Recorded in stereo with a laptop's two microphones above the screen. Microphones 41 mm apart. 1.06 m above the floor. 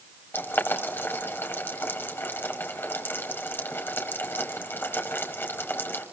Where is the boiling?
65° left (ahead or behind), 6 m.